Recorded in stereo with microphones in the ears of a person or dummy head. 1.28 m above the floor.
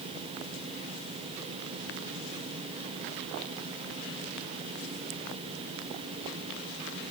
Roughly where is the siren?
I don't hear a siren.